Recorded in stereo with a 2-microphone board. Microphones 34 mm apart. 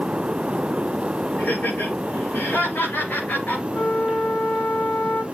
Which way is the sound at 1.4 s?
60° left (ahead or behind).